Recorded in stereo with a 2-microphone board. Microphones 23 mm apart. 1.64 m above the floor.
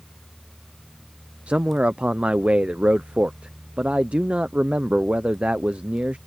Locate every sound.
1.5 s a man speaking: 75° right (ahead or behind)